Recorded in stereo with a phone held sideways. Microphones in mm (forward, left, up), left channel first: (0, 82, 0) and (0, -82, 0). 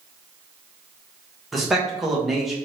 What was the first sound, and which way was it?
A man speaking, centre (ahead or behind).